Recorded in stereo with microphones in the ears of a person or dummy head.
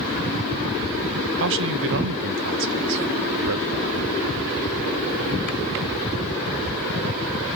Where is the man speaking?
65° right (ahead or behind), 0.9 m.